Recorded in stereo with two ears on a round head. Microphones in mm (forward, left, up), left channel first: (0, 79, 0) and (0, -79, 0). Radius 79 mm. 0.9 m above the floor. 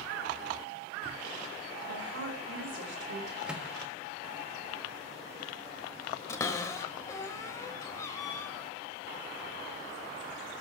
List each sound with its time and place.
1.9 s a woman speaking: 70° right (ahead or behind), 4.5 m; by 3.4 s 65° right (ahead or behind), 3.5 m
3.5 s a microwave: 5° right (ahead or behind), 1.3 m
6.3 s a cupboard door: 15° left (ahead or behind), 1.1 m